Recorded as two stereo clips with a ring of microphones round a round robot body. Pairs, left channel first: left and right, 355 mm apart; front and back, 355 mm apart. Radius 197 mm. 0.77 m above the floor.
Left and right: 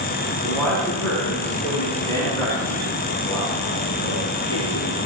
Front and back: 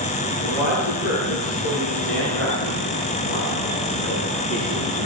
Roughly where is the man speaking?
Ahead.